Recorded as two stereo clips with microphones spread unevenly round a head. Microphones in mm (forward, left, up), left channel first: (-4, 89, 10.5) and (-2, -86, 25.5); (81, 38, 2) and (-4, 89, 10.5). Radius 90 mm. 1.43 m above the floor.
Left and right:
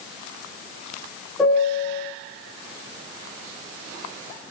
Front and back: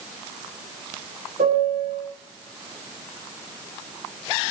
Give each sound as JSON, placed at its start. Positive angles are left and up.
{"t": 1.4, "sound": "a piano", "azimuth_deg": 175, "distance_m": 4.5}